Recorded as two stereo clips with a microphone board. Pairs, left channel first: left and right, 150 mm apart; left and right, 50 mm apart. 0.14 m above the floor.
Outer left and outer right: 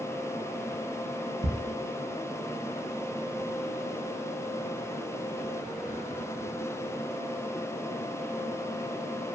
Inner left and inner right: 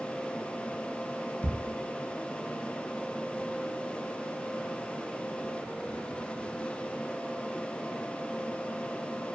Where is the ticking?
45° right (ahead or behind), 0.5 m.